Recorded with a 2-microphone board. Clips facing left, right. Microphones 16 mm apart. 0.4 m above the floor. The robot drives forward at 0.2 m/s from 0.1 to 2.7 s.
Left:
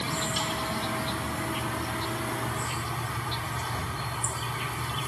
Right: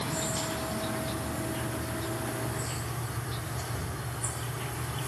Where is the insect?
80° left, 1.7 m; by 5.1 s 70° left (ahead or behind), 1.7 m.